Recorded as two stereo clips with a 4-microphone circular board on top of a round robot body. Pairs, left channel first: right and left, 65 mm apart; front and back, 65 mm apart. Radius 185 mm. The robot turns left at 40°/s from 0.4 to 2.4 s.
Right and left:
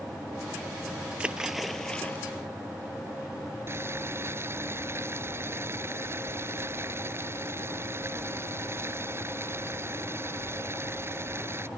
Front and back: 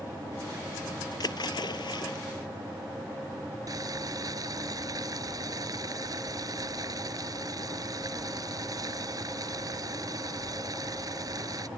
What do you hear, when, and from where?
1.2 s a splash: 20° left; by 2.2 s 20° right
3.7 s boiling: 145° left